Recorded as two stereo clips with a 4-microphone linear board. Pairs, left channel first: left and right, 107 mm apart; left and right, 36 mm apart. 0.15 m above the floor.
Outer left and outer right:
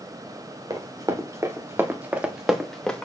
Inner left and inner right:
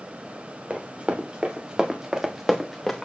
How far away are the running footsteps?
About 2.5 m.